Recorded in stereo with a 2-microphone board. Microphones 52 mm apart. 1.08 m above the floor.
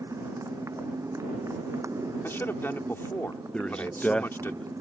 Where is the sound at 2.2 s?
45° left (ahead or behind).